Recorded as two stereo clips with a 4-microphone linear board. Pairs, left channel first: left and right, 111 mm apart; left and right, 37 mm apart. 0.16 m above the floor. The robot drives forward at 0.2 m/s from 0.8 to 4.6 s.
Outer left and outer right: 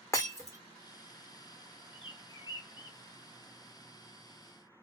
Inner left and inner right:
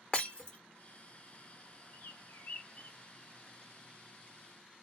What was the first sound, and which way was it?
Breaking glass, 25° left (ahead or behind).